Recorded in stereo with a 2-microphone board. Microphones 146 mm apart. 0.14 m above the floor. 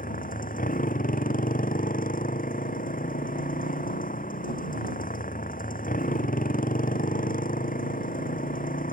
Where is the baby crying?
I don't hear a baby crying.